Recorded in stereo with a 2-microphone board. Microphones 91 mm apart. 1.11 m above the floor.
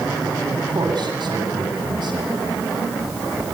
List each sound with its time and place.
0.5 s a man speaking: 65° right (ahead or behind), 9 m